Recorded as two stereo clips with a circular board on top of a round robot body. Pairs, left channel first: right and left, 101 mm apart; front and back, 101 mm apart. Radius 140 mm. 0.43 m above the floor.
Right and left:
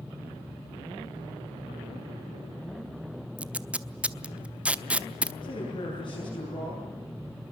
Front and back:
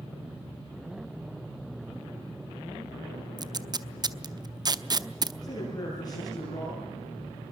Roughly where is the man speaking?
Ahead right.